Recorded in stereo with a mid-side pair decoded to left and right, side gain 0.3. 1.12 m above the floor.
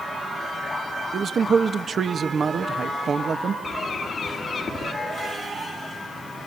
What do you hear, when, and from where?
1.1 s a man speaking: 60° right, 1.2 m
3.6 s a bird: 65° left, 1.8 m